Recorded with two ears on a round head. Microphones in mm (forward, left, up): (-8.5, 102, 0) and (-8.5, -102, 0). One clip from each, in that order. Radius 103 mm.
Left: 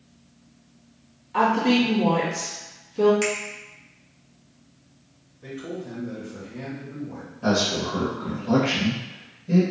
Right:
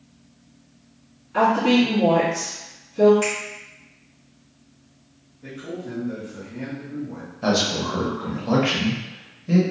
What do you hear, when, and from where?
1.3 s a woman speaking: 40° left (ahead or behind), 1.9 m
3.2 s a finger snap: 50° left (ahead or behind), 1.3 m
5.4 s a man speaking: 35° left (ahead or behind), 1.1 m
7.4 s a man speaking: 35° right (ahead or behind), 0.7 m